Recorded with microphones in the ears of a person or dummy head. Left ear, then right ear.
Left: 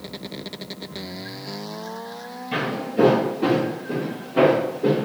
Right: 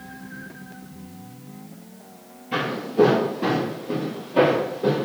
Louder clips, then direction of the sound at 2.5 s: Right 1 dB; 10° left (ahead or behind).